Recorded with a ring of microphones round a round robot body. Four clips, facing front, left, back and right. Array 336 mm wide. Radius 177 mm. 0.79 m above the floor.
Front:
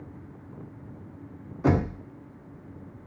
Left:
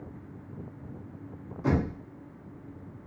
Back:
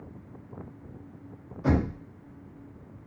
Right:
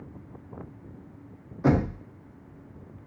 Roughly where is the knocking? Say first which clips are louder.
Right 4 dB, front 2 dB; ahead right.